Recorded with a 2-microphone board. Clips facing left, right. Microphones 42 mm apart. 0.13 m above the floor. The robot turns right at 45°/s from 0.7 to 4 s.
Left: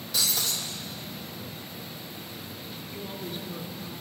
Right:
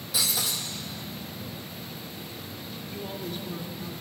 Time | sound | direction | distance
0.1 | breaking glass | 5° right (ahead or behind) | 3 m
2.9 | a woman speaking | 145° left | 2 m